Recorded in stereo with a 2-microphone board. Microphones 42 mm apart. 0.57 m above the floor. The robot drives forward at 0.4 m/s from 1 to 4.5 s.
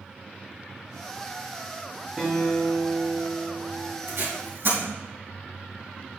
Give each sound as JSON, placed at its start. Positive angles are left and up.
{"t": 2.2, "sound": "a guitar", "side_deg": -10, "distance_m": 4.5}
{"t": 4.1, "sound": "tape being pulled", "side_deg": -75, "distance_m": 4.5}